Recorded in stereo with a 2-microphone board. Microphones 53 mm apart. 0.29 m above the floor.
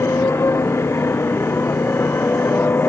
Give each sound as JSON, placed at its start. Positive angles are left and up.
{"t": 0.0, "sound": "a motorcycle", "side_deg": 50}